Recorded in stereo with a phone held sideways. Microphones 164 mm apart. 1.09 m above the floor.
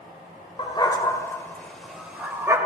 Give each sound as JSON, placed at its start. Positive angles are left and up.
{"t": 0.6, "sound": "a dog barking", "side_deg": 30, "distance_m": 2.0}